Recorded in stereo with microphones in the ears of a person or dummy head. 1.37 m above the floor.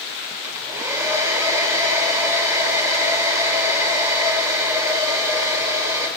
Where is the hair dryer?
20° right (ahead or behind), 3 m.